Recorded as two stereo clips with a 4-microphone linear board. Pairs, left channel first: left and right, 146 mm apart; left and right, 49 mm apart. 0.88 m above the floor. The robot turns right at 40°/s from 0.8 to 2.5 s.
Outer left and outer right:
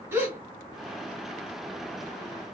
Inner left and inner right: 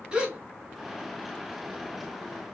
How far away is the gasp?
About 2 m.